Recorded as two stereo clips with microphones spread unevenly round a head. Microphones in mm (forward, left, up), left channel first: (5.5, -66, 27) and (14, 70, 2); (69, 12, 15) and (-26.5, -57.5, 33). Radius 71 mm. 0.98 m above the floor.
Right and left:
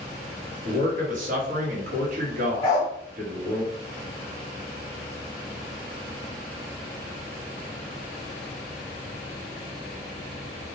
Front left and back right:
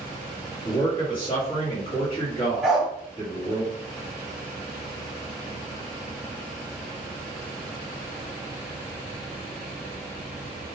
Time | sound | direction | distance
0.7 | a man speaking | 85° left | 1.0 m
2.6 | a dog barking | 70° right | 0.7 m